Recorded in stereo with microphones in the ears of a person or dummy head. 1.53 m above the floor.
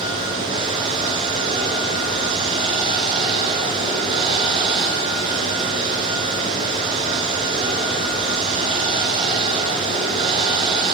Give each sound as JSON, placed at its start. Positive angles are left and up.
{"t": 0.0, "sound": "running water", "side_deg": -25, "distance_m": 4.5}